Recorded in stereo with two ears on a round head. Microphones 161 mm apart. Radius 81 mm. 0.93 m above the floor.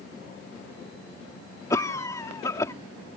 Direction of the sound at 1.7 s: 20° left (ahead or behind).